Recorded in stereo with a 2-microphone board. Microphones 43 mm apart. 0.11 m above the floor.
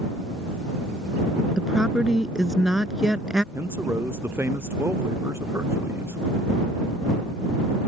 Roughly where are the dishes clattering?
No dishes clattering in this recording.